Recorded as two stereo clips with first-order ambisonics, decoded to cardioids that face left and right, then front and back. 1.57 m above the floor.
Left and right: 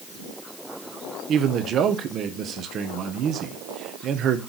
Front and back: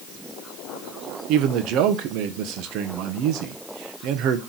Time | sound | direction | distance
1.3 | a man speaking | 145° right | 0.8 m